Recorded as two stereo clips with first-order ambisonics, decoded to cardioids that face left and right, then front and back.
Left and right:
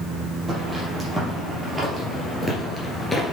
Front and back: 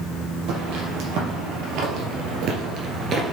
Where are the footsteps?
165° right, 3.5 m; by 3.3 s 160° left, 1.9 m.